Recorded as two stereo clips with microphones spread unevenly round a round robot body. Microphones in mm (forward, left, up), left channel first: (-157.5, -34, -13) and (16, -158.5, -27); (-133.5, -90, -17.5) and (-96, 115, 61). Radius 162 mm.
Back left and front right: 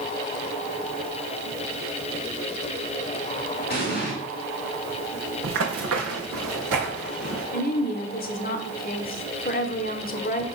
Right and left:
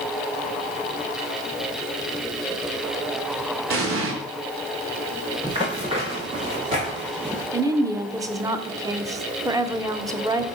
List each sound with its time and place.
3.7 s an explosion: 100° left, 2 m
5.4 s running footsteps: 10° left, 1.1 m
7.5 s a woman speaking: 170° left, 1.1 m